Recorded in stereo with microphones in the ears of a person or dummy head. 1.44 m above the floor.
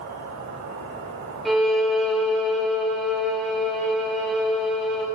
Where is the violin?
Centre (ahead or behind), 4.5 m.